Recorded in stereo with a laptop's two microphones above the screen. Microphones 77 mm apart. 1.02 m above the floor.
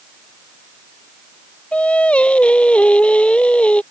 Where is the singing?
15° left (ahead or behind).